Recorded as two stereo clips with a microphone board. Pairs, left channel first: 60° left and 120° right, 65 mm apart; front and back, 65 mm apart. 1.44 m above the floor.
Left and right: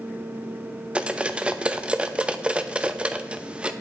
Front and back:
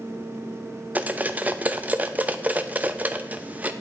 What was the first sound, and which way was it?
Cutlery clinking, 170° right.